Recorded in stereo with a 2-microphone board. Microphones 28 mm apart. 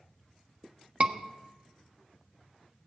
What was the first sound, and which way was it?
A scream, 45° right (ahead or behind).